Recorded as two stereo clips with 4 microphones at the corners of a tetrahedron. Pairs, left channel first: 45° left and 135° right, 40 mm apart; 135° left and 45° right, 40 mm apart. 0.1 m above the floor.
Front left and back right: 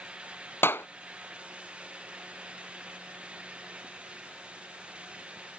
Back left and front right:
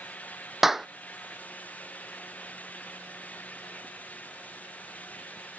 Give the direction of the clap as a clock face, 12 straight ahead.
11 o'clock.